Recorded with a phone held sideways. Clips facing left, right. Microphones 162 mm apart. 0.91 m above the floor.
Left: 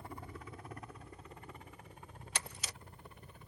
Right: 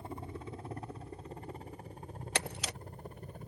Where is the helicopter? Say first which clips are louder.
Right 5 dB; 20° right (ahead or behind); by 3.5 s 40° right (ahead or behind).